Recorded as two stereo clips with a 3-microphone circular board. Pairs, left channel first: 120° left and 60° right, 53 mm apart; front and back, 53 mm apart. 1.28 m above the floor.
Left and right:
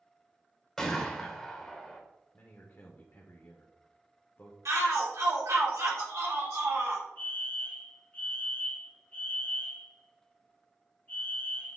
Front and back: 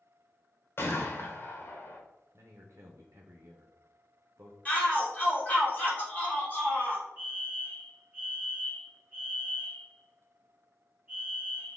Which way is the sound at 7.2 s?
150° left.